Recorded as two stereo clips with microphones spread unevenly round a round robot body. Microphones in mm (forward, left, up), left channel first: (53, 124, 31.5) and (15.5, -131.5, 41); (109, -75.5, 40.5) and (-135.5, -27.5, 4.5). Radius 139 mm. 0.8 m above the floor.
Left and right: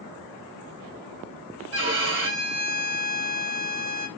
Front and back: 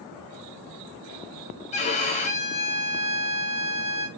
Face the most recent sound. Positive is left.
turn(degrees=-75)